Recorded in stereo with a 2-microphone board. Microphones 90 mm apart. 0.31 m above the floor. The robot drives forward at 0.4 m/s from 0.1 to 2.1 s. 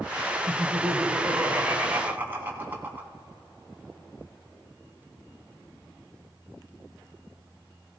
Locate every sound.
0.5 s laughter: 30° right (ahead or behind), 2.5 m; by 3.1 s 25° right (ahead or behind), 3 m